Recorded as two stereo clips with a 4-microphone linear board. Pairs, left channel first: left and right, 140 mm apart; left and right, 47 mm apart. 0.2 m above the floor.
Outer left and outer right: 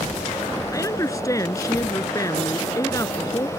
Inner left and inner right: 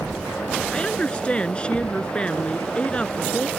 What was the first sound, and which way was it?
A woman speaking, 25° left (ahead or behind).